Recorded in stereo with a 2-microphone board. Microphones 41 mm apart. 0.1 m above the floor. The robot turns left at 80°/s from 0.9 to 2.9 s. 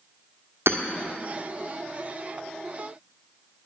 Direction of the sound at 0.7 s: 80° right.